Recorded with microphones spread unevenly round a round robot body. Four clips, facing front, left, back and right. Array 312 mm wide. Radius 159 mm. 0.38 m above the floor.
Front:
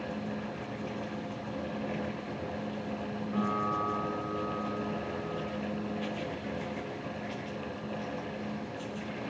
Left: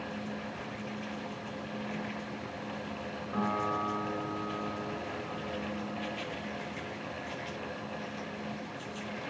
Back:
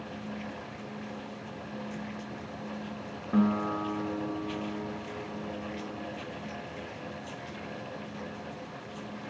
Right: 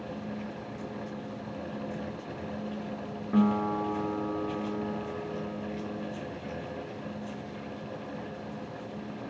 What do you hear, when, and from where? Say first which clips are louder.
3.3 s a guitar: right 6 dB, back 5 dB; 130° right, 3.5 m